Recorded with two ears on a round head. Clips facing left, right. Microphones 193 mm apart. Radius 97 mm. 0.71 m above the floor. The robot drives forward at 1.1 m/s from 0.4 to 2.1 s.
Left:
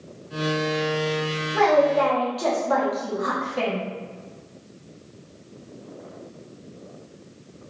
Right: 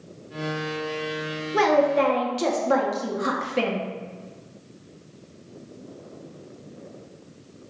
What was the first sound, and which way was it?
A woman speaking, 40° right (ahead or behind).